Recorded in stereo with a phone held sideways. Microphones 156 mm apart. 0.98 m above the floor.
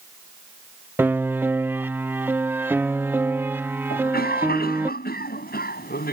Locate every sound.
1.0 s a piano: 15° right (ahead or behind)
3.9 s a cough: 85° left